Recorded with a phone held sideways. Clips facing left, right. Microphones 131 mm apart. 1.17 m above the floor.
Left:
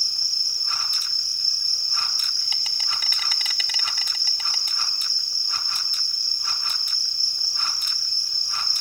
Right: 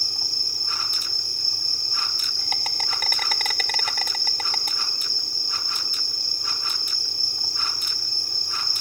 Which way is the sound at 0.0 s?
55° right (ahead or behind).